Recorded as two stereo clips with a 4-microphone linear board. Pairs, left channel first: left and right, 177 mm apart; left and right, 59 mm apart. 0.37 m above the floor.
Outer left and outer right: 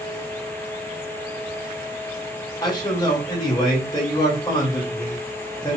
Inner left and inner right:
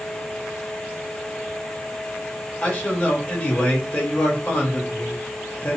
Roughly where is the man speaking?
Left.